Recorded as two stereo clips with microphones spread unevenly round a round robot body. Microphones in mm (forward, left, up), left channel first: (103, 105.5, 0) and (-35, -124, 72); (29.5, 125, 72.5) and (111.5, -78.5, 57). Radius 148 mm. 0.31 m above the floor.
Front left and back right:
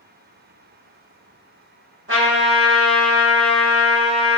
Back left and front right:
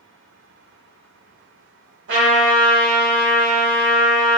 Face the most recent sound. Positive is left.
turn(degrees=-70)